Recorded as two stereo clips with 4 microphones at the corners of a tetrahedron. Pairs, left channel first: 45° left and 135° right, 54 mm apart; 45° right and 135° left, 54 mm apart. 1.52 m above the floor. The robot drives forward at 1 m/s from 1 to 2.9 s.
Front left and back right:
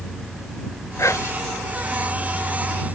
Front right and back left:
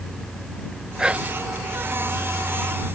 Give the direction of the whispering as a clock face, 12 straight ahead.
10 o'clock.